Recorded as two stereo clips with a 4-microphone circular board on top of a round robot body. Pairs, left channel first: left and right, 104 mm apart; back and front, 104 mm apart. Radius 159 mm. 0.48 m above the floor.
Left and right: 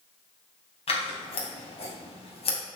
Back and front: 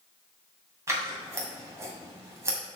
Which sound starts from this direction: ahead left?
Scissors, at 0.9 s.